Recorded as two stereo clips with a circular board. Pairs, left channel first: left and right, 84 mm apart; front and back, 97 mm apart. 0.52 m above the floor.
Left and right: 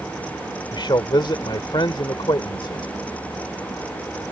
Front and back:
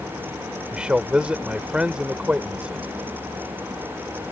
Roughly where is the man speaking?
Left.